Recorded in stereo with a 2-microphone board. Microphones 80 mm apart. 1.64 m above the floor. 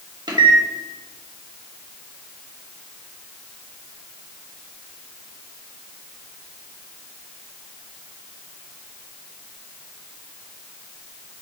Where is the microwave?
65° right (ahead or behind), 0.9 m.